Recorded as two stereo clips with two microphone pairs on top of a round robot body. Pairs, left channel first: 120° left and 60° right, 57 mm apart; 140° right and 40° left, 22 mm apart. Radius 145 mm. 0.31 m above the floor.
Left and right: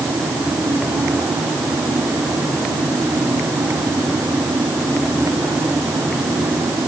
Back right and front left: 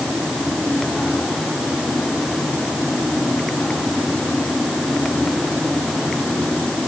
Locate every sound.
Only background noise.